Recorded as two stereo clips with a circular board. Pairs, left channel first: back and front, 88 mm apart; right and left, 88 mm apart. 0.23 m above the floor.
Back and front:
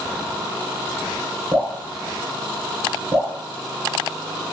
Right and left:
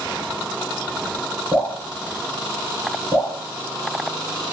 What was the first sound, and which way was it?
Dripping, 35° left.